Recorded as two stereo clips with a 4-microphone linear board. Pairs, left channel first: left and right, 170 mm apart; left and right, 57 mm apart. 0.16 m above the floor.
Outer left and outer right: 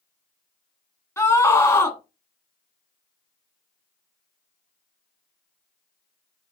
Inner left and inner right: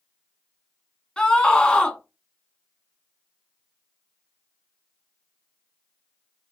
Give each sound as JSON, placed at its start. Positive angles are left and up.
{"t": 1.2, "sound": "a scream", "side_deg": 15, "distance_m": 1.2}